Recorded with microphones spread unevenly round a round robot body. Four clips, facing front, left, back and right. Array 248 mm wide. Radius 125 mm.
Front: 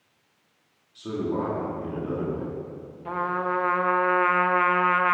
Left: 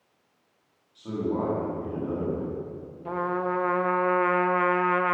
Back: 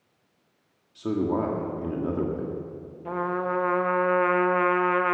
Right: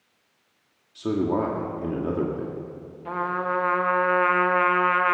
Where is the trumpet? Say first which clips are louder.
Right 1 dB, front 1 dB; straight behind, 0.8 m.